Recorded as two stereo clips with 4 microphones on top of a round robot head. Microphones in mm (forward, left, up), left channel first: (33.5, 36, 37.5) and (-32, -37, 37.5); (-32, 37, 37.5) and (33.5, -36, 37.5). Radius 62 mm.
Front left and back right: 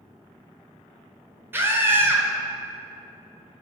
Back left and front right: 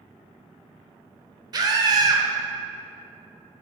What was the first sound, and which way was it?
A scream, 70° right.